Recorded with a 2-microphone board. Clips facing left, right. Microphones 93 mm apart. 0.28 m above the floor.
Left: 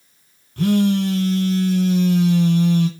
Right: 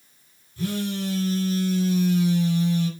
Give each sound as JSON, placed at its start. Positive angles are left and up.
{"t": 0.6, "sound": "a phone buzzing", "side_deg": 65, "distance_m": 1.2}